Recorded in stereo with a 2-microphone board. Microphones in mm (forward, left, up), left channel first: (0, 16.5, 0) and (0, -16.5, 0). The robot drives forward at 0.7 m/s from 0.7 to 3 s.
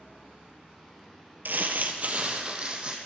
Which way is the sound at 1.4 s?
70° right (ahead or behind).